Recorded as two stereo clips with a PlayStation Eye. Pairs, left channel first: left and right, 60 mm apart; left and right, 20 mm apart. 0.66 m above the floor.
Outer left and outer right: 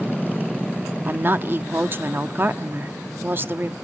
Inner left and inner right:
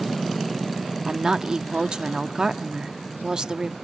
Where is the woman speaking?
35° right (ahead or behind), 0.9 m.